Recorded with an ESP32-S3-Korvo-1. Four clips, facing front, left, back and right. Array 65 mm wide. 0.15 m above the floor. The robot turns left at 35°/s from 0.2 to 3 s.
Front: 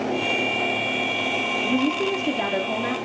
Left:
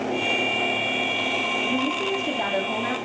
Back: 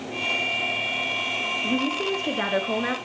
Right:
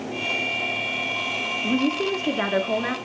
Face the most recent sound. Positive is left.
turn(degrees=-145)